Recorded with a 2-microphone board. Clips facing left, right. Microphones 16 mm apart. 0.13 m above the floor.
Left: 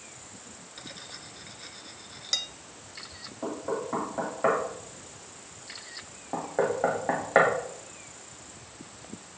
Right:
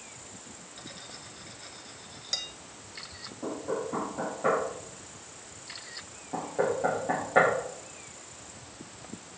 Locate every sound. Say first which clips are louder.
0.8 s cutlery clinking: left 2 dB; 15° left (ahead or behind), 0.8 m
3.4 s knocking: left 1 dB; 55° left (ahead or behind), 4 m